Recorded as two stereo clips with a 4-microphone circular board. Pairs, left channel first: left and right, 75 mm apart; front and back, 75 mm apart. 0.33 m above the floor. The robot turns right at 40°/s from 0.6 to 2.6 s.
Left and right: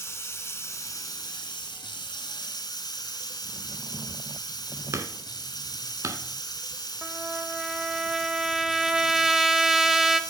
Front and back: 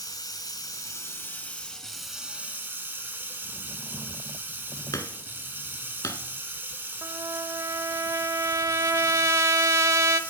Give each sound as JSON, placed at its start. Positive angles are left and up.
{"t": 0.0, "sound": "running water", "azimuth_deg": 35, "distance_m": 1.3}
{"t": 4.9, "sound": "hammering", "azimuth_deg": -40, "distance_m": 0.8}
{"t": 7.0, "sound": "a trumpet", "azimuth_deg": -170, "distance_m": 0.5}